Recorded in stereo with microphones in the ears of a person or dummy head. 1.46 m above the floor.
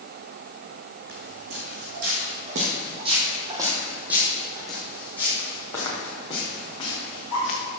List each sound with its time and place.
1.1 s footsteps: 65° right (ahead or behind), 4 m; by 7.6 s 30° left (ahead or behind), 6 m